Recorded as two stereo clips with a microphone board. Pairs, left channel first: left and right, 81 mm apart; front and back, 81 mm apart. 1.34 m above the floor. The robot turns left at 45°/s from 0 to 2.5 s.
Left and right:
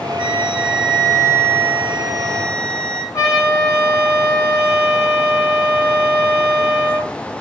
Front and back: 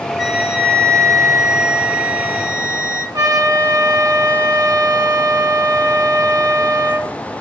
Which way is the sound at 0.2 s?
95° right.